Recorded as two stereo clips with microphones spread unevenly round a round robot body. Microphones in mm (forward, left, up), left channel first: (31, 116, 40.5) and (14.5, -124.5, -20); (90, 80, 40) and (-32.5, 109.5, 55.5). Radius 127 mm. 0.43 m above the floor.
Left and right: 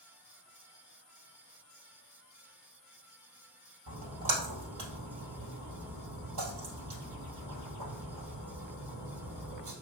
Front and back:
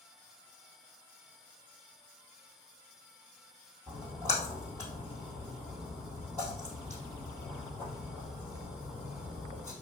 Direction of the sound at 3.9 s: 120° right.